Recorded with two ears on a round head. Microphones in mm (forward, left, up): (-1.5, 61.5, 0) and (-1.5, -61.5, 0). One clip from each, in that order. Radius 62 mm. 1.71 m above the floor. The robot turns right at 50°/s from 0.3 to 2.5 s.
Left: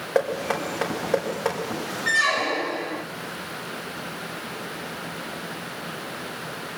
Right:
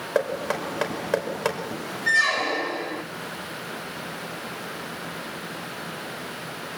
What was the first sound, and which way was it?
Knocking, 10° right (ahead or behind).